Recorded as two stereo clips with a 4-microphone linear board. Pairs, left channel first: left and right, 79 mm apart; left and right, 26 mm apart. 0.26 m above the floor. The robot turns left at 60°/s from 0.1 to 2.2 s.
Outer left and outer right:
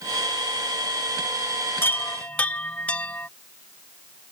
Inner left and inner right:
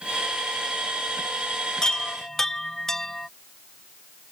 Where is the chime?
30° left (ahead or behind); by 3.3 s 15° left (ahead or behind).